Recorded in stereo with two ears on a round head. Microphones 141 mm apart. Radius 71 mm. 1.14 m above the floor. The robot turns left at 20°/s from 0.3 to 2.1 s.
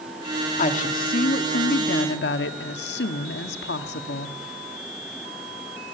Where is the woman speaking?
130° left, 1.9 m; by 4.3 s 100° left, 1.9 m.